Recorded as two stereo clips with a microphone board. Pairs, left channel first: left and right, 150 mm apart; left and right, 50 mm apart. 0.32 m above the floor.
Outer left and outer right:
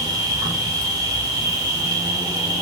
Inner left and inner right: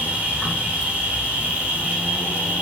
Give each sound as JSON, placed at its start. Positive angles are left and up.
{"t": 0.0, "sound": "an insect", "side_deg": -25, "distance_m": 1.1}